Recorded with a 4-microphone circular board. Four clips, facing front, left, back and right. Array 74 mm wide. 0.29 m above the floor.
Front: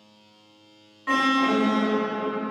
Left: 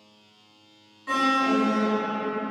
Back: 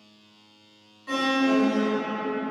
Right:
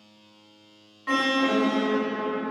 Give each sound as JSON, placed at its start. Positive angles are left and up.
{"t": 1.1, "sound": "an alarm", "azimuth_deg": -25, "distance_m": 3.0}